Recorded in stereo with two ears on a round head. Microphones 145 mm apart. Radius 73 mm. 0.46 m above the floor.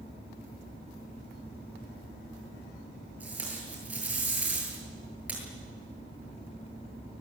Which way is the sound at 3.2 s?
10° right (ahead or behind).